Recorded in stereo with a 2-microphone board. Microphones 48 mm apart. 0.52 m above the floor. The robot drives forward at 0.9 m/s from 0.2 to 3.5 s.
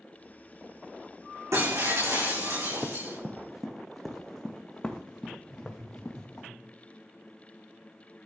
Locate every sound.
1.5 s breaking glass: 85° right, 6.5 m; by 3.2 s 75° right (ahead or behind), 7 m
2.8 s running footsteps: 20° right (ahead or behind), 1.3 m; by 6.5 s 40° left (ahead or behind), 2.5 m
5.5 s laughter: 70° right (ahead or behind), 7.5 m